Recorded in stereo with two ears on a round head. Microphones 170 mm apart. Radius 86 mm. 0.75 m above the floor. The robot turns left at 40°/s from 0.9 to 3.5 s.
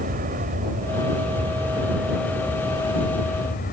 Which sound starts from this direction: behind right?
An aircraft, at 0.0 s.